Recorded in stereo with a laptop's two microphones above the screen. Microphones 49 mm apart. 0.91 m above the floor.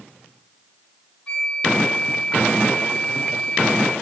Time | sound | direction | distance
1.3 | a flute | 25° left (ahead or behind) | 6.5 m